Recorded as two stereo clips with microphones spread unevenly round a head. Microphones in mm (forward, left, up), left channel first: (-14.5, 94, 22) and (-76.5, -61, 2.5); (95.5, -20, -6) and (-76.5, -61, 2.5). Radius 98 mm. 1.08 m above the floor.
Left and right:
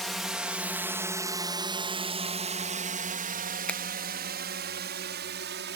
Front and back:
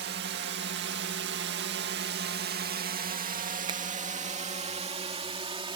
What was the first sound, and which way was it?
A drone, 160° left.